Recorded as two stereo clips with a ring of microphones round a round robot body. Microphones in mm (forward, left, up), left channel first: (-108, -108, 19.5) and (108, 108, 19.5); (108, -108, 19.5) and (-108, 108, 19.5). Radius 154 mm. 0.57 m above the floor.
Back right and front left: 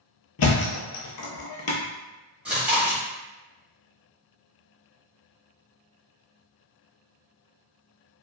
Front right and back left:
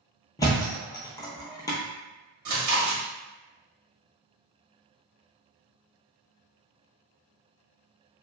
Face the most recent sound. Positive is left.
turn(degrees=130)